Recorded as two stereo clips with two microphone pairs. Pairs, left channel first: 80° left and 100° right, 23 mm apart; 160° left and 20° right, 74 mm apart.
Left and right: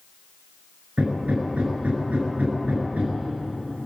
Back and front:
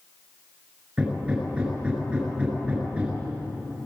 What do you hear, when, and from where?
1.0 s hammering: 95° right, 7.5 m